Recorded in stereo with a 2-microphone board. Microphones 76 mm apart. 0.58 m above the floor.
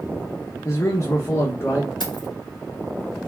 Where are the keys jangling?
80° left, 2.5 m.